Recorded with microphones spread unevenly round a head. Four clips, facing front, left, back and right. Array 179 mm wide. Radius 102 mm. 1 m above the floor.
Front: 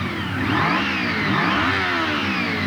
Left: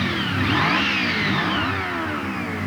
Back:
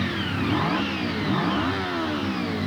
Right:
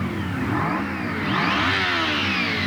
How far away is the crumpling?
I don't hear crumpling.